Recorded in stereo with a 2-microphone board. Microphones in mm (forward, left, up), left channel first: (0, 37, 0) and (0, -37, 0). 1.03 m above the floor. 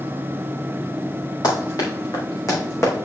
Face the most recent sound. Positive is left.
turn(degrees=35)  # may be behind; listen again after turning